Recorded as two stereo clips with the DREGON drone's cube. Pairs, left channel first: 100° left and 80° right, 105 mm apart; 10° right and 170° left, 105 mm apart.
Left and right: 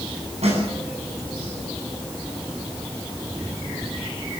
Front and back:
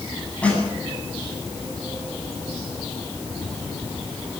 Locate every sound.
0.4 s a snare drum: 90° right, 9.5 m